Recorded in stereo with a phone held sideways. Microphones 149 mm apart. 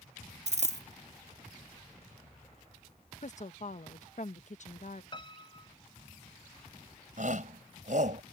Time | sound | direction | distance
0.5 | a dropped coin | 50° right (ahead or behind) | ?
3.2 | a woman speaking | 50° left (ahead or behind) | ?
5.1 | a piano | 35° left (ahead or behind) | ?
7.2 | a shout | 55° right (ahead or behind) | ?